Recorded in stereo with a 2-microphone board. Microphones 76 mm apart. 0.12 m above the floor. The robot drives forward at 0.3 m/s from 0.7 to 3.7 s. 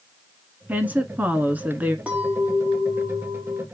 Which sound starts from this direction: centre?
A clink, at 2.1 s.